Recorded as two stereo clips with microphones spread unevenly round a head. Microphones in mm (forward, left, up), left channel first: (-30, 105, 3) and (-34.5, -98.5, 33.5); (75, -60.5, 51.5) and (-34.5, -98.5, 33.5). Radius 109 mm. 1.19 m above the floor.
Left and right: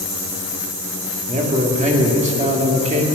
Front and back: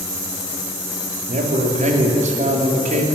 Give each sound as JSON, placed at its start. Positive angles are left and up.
{"t": 1.3, "sound": "a man speaking", "azimuth_deg": -150, "distance_m": 2.0}